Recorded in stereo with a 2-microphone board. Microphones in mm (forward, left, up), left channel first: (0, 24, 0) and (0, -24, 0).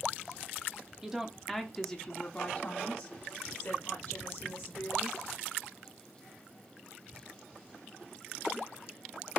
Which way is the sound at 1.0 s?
15° right (ahead or behind).